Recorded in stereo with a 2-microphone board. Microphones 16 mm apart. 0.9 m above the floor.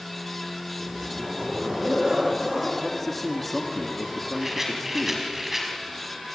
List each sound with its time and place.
0.8 s a zipper: 40° right (ahead or behind), 4.5 m
2.8 s a man speaking: 10° left (ahead or behind), 2 m
4.4 s a rattle: 20° right (ahead or behind), 4.5 m